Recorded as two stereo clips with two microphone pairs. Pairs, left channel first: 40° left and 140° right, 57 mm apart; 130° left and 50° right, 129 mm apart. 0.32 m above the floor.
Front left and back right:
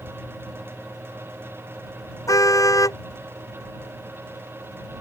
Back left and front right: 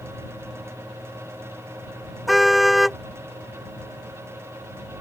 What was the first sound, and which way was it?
A car horn, 40° left.